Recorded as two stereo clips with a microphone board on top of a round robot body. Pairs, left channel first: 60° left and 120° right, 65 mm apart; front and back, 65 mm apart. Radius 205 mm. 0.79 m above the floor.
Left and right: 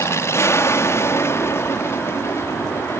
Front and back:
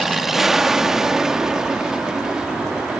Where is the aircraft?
95° left; by 3.0 s 105° left.